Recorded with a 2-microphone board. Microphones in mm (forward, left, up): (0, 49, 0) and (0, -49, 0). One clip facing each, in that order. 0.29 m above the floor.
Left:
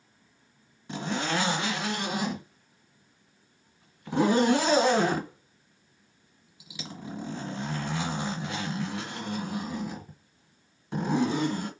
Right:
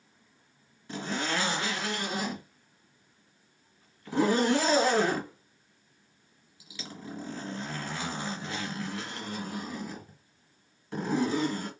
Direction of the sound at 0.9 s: 20° left (ahead or behind).